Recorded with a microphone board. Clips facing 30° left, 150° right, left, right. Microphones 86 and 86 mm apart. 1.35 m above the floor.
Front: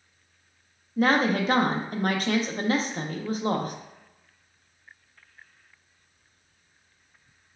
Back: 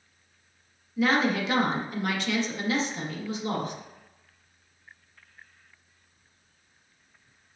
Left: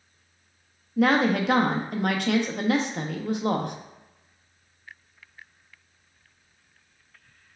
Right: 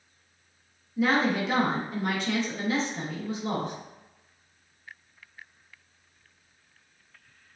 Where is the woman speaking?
75° left, 0.6 m.